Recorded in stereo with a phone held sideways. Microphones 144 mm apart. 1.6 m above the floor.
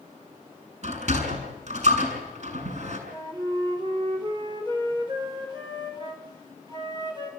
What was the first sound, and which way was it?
A sliding door, 55° right (ahead or behind).